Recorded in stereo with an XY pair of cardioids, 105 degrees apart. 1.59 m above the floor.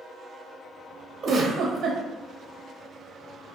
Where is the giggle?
60° right, 0.7 m.